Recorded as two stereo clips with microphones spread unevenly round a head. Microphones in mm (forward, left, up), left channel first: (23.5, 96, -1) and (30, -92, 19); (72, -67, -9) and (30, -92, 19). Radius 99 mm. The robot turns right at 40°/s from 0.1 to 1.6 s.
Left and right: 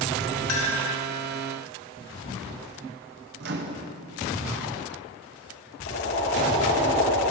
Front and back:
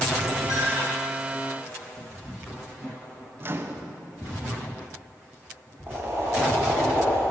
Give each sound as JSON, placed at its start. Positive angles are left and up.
{"t": 0.5, "sound": "a clink", "azimuth_deg": 100, "distance_m": 1.7}
{"t": 3.4, "sound": "a microwave", "azimuth_deg": -125, "distance_m": 0.9}
{"t": 5.9, "sound": "boiling", "azimuth_deg": 135, "distance_m": 2.5}